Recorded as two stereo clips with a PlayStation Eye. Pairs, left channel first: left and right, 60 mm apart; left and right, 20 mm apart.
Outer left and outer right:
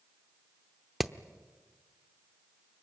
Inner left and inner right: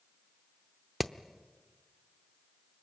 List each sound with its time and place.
1.0 s hammering: 5° right (ahead or behind), 0.7 m